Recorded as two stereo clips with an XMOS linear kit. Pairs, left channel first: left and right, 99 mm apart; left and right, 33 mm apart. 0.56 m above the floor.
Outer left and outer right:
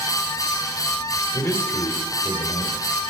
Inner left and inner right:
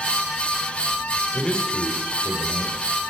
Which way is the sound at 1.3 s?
20° left (ahead or behind).